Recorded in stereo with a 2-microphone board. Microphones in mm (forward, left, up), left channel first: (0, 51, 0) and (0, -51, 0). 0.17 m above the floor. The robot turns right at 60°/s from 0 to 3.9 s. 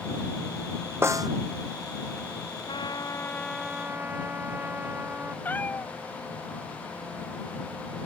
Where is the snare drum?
25° right (ahead or behind); by 1.3 s 40° right (ahead or behind).